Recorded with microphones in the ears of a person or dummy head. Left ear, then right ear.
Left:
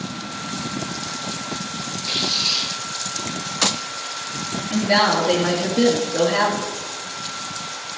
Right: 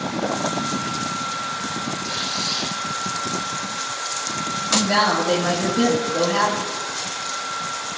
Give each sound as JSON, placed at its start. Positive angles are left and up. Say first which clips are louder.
{"t": 2.0, "sound": "tearing paper", "louder": "left 6 dB", "side_deg": 75, "distance_m": 7.5}
{"t": 4.7, "sound": "a woman speaking", "louder": "left 1 dB", "side_deg": 15, "distance_m": 2.5}